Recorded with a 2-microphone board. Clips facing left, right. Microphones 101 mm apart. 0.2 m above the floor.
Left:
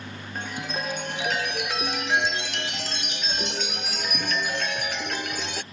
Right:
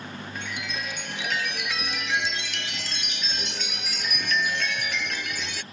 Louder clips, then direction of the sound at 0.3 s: Left 5 dB; 40° left (ahead or behind).